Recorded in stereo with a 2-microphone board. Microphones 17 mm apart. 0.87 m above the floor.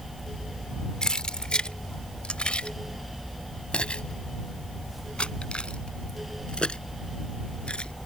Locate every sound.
1.0 s keys jangling: 45° left (ahead or behind); by 7.9 s 70° left (ahead or behind)